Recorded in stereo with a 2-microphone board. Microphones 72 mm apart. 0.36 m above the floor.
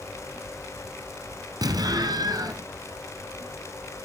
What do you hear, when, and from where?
1.6 s an explosion: 65° right (ahead or behind), 1.0 m